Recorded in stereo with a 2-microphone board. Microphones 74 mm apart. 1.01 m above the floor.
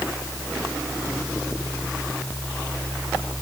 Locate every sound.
Only background noise.